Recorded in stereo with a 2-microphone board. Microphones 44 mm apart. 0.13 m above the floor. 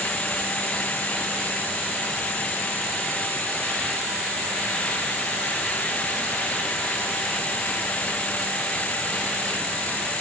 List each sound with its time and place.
Only background noise.